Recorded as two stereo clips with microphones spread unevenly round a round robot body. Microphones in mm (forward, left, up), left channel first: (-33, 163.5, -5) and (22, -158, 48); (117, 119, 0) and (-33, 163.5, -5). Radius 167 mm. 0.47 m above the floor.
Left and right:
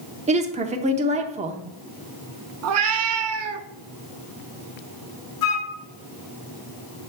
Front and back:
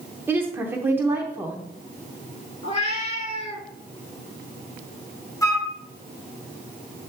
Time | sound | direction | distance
0.3 | a woman speaking | 145° right | 0.7 m
2.6 | a cat meowing | 60° right | 0.5 m
5.4 | a flute | 55° left | 1.6 m